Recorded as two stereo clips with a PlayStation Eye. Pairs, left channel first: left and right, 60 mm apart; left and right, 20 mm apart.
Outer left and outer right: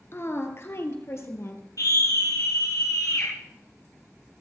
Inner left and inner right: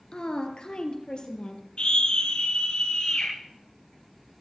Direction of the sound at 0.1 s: 45° left (ahead or behind).